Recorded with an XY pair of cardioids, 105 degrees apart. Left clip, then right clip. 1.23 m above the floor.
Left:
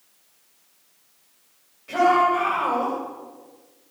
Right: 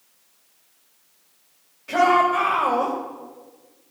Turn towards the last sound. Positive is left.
turn(degrees=-30)